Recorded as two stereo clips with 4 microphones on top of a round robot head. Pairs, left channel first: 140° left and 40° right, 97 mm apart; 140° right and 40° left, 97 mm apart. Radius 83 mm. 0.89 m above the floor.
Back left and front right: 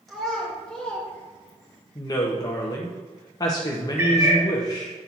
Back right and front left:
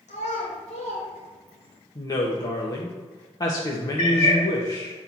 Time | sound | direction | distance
0.1 | a child speaking | 130° right | 3 m
1.9 | a woman speaking | straight behind | 1.3 m
4.0 | a cat meowing | 110° right | 3 m